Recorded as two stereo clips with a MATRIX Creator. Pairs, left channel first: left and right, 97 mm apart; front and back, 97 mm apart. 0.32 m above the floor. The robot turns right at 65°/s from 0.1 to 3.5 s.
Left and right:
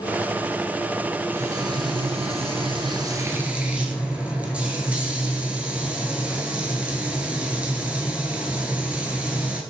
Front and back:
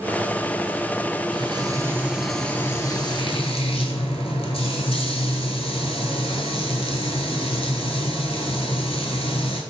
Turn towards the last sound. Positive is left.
turn(degrees=-15)